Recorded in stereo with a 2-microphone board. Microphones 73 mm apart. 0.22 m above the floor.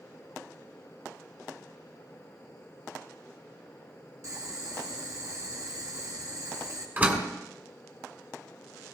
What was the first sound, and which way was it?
Boiling, 50° right (ahead or behind).